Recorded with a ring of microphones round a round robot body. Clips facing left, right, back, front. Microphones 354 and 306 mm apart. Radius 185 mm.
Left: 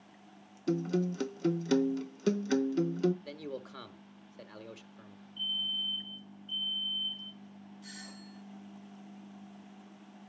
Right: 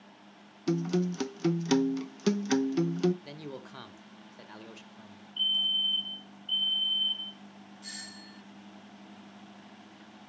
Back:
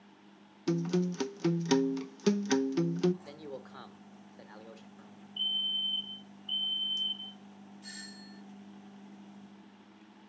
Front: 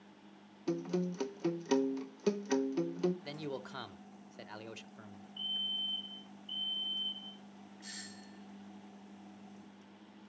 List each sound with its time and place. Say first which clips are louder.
0.7 s a guitar: right 2 dB, back 4 dB; 150° right, 0.5 m
3.2 s a man speaking: left 1 dB, front 2 dB; 15° right, 1.4 m
5.4 s a fire alarm: even, back 1 dB; 140° right, 3.5 m
7.8 s a doorbell: left 1 dB, back 2 dB; 70° right, 1.4 m